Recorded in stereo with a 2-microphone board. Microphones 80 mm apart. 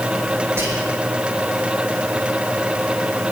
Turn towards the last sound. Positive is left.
turn(degrees=-30)  # may be behind; listen again after turning